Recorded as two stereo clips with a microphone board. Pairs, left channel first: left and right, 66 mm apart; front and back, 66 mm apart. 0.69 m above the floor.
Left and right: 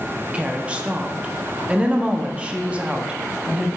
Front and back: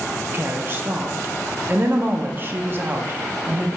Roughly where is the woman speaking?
Behind right.